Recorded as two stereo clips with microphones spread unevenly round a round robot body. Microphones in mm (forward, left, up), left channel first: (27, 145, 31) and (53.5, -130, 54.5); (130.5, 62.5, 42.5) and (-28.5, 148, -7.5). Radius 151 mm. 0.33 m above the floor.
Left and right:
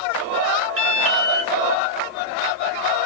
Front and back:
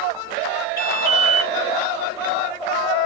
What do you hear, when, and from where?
0.8 s an alarm: 110° right, 2.5 m